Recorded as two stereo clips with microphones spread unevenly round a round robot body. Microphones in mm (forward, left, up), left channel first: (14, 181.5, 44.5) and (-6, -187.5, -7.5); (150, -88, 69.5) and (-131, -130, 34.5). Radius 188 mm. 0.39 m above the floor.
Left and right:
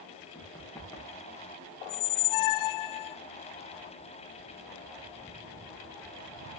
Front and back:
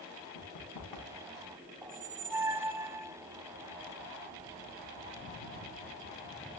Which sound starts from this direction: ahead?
Running footsteps, at 0.3 s.